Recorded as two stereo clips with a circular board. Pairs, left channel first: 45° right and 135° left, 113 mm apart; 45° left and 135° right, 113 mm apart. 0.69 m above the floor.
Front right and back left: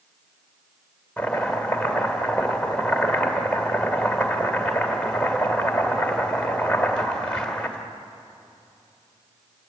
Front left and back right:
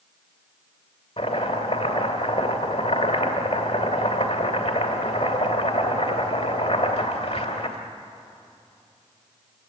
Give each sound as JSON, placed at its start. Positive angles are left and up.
{"t": 1.2, "sound": "chopping", "azimuth_deg": 35, "distance_m": 2.5}